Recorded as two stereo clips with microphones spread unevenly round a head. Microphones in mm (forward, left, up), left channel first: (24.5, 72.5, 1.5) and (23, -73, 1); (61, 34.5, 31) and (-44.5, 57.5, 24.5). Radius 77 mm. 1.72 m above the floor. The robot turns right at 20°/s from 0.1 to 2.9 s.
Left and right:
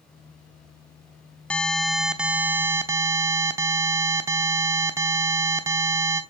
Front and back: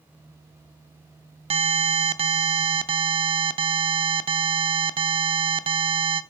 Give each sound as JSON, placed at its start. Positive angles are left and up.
{"t": 1.5, "sound": "an alarm", "azimuth_deg": 170, "distance_m": 0.6}